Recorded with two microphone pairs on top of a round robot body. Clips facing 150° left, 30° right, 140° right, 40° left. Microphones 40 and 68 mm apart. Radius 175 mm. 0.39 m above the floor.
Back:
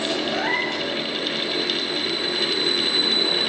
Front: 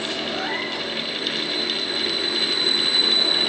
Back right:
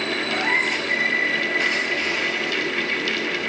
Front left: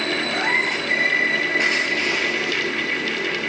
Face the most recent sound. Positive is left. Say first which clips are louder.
# back 3 dB, back right 1 dB
turn(degrees=120)